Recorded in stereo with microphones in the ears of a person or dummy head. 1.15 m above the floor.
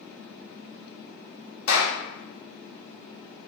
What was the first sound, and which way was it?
A clap, 85° left.